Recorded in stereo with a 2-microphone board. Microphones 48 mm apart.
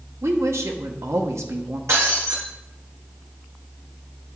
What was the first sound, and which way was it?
A woman speaking, 75° right (ahead or behind).